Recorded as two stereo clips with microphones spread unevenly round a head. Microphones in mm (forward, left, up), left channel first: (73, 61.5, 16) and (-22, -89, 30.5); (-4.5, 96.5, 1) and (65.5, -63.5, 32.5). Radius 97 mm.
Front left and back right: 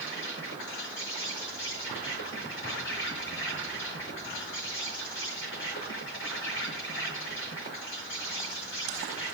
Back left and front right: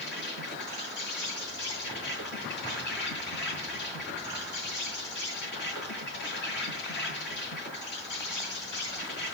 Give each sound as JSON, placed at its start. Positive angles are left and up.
{"t": 0.0, "sound": "an insect", "azimuth_deg": 90, "distance_m": 5.0}